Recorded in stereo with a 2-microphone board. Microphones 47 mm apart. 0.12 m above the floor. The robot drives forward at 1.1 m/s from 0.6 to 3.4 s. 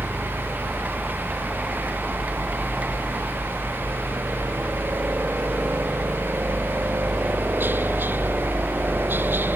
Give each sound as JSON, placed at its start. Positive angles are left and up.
{"t": 0.0, "sound": "a helicopter", "side_deg": -40}